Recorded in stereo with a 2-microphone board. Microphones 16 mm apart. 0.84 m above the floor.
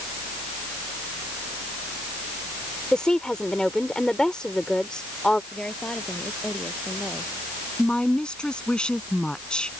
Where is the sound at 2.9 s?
65° left (ahead or behind).